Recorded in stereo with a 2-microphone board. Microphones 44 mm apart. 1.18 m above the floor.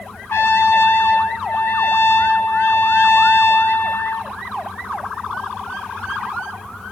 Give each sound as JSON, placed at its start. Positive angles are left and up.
{"t": 0.3, "sound": "a trumpet", "side_deg": 65, "distance_m": 1.1}